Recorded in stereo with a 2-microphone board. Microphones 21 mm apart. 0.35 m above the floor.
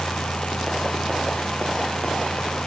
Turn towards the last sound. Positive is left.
No sound to turn to.